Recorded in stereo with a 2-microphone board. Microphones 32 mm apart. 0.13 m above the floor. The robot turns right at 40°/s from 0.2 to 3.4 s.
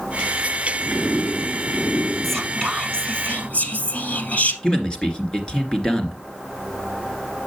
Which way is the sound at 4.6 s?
25° left (ahead or behind).